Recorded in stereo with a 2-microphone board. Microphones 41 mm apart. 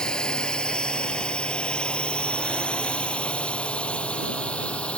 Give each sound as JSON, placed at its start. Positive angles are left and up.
{"t": 0.0, "sound": "a drone", "side_deg": 20}